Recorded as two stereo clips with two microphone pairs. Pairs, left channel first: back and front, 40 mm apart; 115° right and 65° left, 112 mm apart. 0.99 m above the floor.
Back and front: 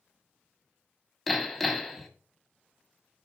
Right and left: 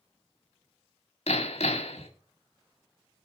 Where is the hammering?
100° right, 1.9 m.